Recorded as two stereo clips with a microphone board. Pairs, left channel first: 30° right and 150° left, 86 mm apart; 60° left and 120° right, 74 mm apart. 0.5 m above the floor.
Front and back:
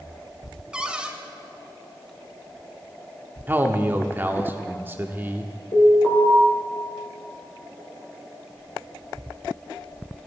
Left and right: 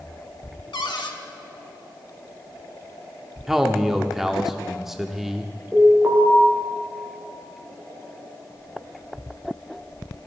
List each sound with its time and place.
0.7 s a cupboard door: 70° left, 0.7 m
3.5 s a man speaking: 160° left, 0.7 m
5.7 s an alarm: 35° right, 3 m